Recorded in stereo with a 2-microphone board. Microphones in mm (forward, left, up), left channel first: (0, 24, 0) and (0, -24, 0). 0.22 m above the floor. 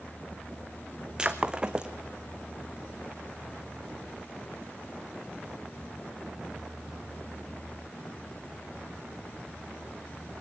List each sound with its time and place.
1.2 s breaking glass: 15° right (ahead or behind), 1.7 m